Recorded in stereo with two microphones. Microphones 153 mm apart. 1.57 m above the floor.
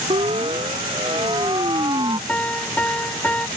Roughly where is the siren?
Right.